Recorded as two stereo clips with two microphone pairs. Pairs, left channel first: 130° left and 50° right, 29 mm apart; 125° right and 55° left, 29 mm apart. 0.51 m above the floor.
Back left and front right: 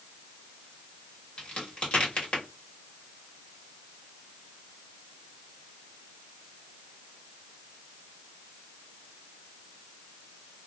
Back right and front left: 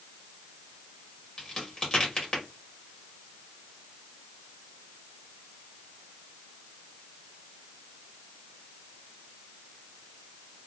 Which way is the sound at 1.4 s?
170° left.